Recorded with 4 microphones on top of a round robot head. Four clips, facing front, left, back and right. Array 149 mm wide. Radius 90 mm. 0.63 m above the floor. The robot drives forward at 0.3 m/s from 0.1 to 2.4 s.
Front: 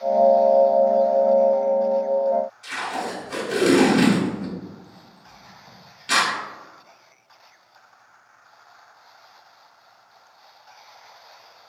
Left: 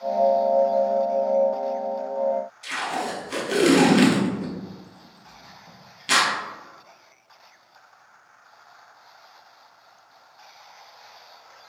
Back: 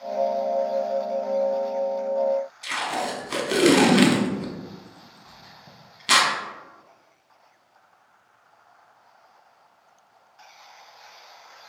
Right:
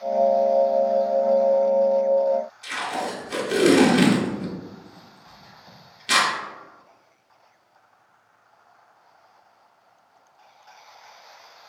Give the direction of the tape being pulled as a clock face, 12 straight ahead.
6 o'clock.